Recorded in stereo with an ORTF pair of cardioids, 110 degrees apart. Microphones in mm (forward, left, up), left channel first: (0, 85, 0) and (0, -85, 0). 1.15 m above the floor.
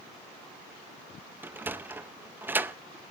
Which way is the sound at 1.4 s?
10° right.